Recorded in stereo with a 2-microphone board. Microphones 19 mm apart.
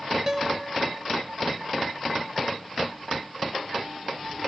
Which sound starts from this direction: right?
A guitar, at 0.3 s.